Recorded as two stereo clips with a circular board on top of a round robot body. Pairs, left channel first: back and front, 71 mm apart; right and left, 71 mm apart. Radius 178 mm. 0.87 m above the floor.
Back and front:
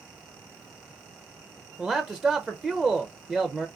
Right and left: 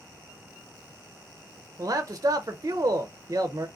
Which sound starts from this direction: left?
A man speaking, at 1.8 s.